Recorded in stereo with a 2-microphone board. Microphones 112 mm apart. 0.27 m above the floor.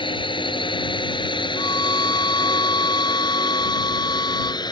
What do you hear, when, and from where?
0.0 s a drone: 45° left (ahead or behind); by 4.7 s 40° left (ahead or behind)
1.6 s a violin: 40° left (ahead or behind)